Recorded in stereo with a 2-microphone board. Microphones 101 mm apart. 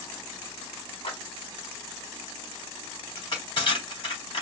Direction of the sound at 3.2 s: 50° left (ahead or behind).